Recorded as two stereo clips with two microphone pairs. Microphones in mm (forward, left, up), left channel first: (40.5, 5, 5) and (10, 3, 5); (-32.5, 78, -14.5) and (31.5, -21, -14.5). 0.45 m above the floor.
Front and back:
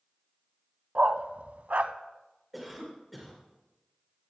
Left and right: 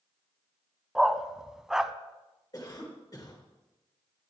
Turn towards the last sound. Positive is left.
turn(degrees=95)